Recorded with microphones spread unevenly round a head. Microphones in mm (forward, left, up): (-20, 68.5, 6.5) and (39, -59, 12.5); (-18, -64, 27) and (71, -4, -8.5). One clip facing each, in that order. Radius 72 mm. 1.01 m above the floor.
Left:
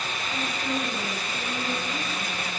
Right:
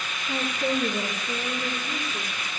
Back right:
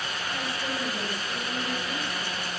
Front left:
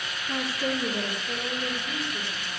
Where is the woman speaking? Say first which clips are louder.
Right 5 dB, front left 6 dB; 20° right, 2.5 m; by 2.5 s 35° right, 3.5 m.